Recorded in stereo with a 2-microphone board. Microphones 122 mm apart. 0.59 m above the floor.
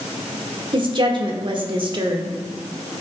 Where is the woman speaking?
45° right (ahead or behind), 1.2 m.